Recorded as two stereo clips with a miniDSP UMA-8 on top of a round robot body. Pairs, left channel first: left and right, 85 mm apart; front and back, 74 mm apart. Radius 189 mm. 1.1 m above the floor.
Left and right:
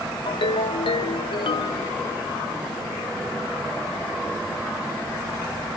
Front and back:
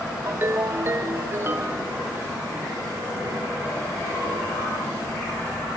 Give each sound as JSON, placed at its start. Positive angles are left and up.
{"t": 0.3, "sound": "a ringtone", "azimuth_deg": 120, "distance_m": 0.6}